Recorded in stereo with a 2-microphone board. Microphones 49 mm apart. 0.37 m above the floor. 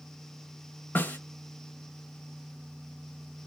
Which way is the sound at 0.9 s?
40° left (ahead or behind).